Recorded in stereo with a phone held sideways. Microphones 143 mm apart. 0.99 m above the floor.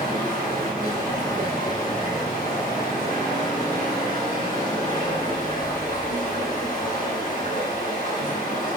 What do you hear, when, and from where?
0.0 s running water: 60° left (ahead or behind), 4.5 m